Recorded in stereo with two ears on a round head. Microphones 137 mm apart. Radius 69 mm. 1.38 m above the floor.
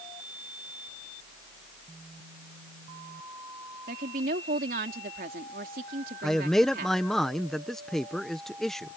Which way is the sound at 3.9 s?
60° right (ahead or behind).